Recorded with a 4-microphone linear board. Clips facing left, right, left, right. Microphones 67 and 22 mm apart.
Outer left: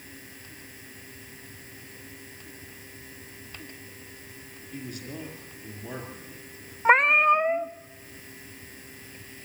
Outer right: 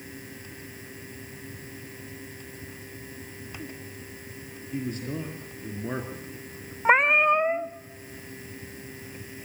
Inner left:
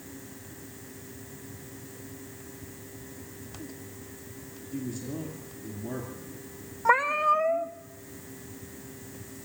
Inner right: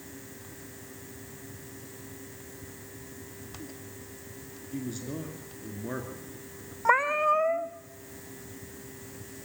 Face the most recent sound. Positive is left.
turn(degrees=0)  # may be behind; listen again after turning